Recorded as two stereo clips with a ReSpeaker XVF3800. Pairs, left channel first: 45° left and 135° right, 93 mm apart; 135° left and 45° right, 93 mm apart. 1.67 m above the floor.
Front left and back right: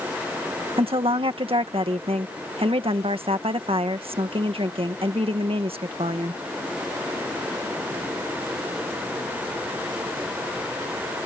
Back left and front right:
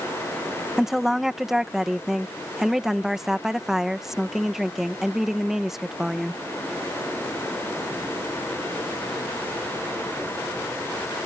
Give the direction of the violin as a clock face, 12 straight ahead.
No violin in this recording.